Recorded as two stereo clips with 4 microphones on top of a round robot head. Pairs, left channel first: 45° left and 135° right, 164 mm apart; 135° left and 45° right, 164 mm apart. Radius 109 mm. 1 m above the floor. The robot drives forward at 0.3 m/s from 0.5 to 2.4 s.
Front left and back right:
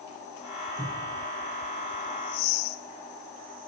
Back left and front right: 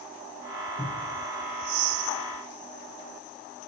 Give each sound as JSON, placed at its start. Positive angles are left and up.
{"t": 0.8, "sound": "a cupboard door", "azimuth_deg": -175, "distance_m": 4.5}